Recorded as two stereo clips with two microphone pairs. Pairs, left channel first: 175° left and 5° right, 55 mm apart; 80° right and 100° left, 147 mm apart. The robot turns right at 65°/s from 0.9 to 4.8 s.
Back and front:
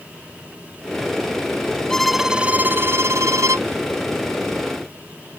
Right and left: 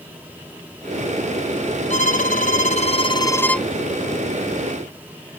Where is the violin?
110° right; by 3.7 s 5° left.